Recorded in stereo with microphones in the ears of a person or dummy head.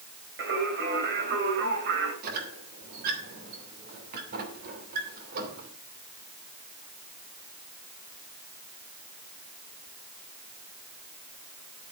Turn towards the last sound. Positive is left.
turn(degrees=-50)  # may be behind; listen again after turning